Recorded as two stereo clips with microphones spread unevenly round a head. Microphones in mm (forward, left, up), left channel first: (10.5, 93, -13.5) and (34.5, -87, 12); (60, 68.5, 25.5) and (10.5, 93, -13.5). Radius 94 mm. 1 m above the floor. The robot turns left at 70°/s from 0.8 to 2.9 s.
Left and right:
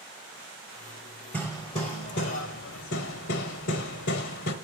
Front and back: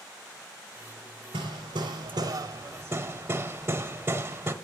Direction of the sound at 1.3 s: 175° right.